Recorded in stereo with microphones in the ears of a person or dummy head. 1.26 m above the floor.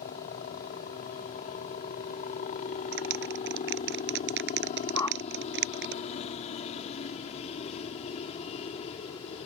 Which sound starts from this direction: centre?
A whoosh, at 5.0 s.